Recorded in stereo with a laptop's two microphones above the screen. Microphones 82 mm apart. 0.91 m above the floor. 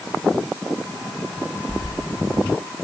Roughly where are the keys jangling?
Left.